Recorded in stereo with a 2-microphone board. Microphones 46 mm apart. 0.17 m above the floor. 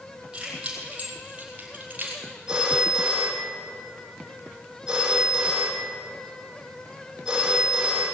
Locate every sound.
0.3 s keys jangling: 20° right (ahead or behind), 5 m; by 2.2 s 40° right (ahead or behind), 3 m
2.5 s a phone ringing: 10° right (ahead or behind), 3.5 m